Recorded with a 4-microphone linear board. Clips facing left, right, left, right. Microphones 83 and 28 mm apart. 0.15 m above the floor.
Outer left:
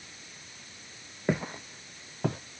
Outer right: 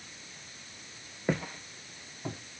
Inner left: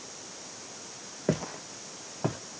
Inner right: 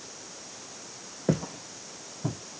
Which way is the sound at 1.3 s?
5° left (ahead or behind).